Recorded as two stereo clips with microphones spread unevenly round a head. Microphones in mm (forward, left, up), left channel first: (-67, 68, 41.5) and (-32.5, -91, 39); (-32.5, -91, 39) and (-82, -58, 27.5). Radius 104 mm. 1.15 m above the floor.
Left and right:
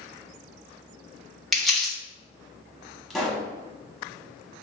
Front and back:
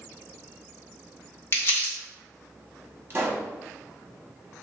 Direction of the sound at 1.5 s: 10° left.